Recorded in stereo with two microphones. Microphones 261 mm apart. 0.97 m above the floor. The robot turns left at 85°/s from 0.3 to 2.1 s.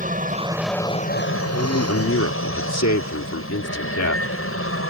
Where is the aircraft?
150° right; by 4.9 s 60° left.